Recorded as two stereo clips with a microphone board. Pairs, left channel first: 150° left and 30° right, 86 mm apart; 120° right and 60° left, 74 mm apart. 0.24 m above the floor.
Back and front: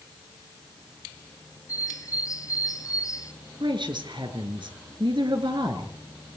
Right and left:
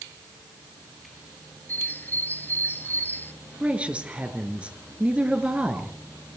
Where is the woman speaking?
15° right, 3.5 m.